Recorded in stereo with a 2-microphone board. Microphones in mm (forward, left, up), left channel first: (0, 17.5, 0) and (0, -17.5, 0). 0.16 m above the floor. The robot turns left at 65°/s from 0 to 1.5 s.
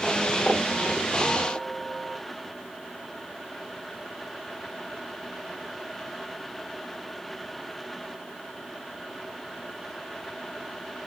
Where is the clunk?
No clunk in this recording.